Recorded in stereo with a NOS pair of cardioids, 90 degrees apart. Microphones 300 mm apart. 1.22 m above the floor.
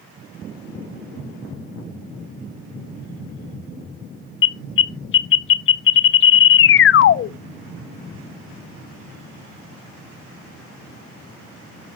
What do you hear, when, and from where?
4.4 s an alarm: 45° left, 0.5 m